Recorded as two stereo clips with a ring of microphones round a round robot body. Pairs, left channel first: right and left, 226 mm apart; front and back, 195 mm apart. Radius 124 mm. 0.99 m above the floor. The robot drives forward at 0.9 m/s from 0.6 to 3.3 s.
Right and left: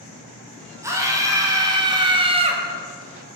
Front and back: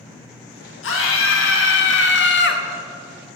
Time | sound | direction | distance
0.8 | a scream | 10° left | 3 m